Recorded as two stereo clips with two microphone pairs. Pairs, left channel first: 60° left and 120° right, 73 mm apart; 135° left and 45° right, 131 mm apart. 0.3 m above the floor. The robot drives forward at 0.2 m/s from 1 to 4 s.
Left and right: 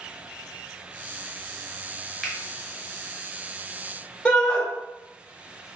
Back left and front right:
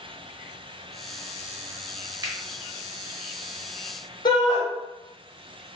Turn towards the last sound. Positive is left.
turn(degrees=125)